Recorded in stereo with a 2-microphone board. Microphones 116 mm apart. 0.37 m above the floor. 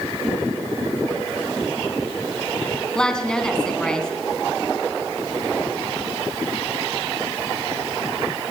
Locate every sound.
3.0 s a woman speaking: 5° left (ahead or behind), 2.5 m